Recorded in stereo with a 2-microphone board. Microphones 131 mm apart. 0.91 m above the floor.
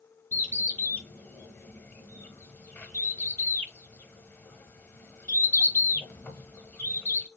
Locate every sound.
0.3 s a bird: 15° left (ahead or behind), 0.7 m